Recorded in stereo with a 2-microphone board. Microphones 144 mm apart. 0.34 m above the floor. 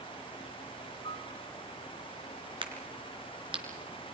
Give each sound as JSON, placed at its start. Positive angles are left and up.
{"t": 1.0, "sound": "a piano", "side_deg": 40, "distance_m": 4.5}
{"t": 2.6, "sound": "a crack", "side_deg": -35, "distance_m": 4.0}